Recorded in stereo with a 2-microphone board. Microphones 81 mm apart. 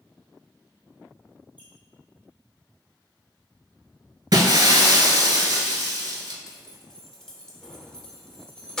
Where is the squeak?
20° right (ahead or behind), 1.3 m.